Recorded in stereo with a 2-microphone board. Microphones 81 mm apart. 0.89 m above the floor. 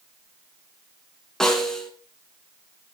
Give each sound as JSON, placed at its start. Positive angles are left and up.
{"t": 1.4, "sound": "a snare drum", "side_deg": 5, "distance_m": 2.5}